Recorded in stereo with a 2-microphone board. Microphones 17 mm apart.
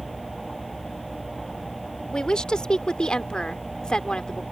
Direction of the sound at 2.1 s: 60° left (ahead or behind).